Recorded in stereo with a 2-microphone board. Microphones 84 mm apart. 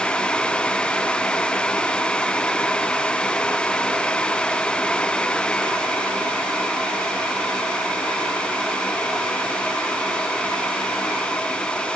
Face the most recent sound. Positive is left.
No sound to turn to.